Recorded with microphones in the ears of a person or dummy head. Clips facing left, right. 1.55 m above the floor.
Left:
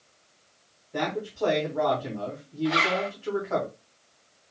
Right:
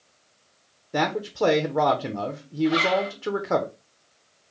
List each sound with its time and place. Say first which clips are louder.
0.9 s a man speaking: right 5 dB; 65° right (ahead or behind), 1.0 m
2.6 s a zipper: right 4 dB; 45° left (ahead or behind), 1.5 m